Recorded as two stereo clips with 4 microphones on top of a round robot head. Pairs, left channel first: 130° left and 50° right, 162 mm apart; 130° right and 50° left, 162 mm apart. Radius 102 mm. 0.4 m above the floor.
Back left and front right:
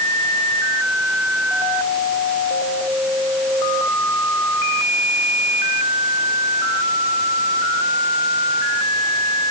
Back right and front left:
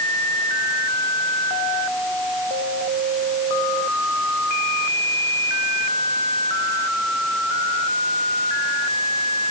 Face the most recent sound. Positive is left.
No sound to turn to.